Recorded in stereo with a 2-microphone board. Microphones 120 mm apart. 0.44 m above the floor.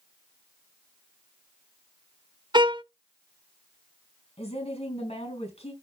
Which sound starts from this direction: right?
A violin, at 2.5 s.